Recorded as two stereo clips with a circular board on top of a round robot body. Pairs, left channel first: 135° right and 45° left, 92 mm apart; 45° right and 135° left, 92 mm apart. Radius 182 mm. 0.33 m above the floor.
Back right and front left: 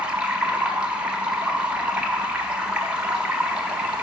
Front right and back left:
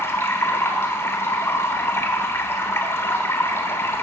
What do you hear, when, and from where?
0.0 s running water: 20° right, 1.2 m